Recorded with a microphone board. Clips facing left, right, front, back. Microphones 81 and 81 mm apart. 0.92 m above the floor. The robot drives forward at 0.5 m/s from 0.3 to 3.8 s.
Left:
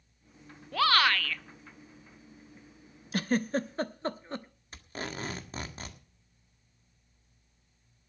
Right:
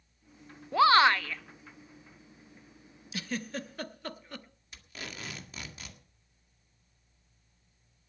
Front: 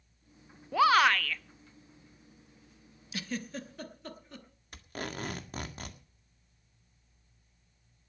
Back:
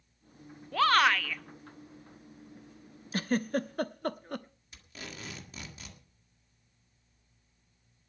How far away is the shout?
About 0.7 m.